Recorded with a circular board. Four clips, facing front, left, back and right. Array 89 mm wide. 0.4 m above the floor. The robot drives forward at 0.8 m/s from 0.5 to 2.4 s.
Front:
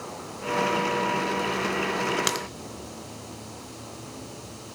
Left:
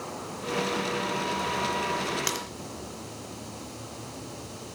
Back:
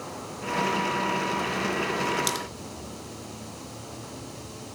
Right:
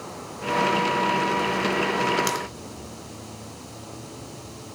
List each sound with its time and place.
2.3 s a crack: 5° right, 0.7 m